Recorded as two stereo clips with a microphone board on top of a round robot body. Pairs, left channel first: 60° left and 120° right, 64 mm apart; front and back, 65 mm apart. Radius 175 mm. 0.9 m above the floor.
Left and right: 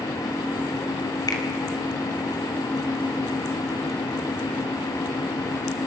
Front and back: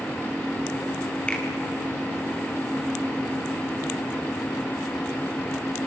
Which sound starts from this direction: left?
A finger snap, at 1.3 s.